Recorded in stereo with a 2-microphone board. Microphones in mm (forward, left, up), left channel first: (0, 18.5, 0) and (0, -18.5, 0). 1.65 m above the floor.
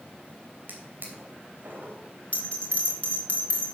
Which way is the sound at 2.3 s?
35° left (ahead or behind).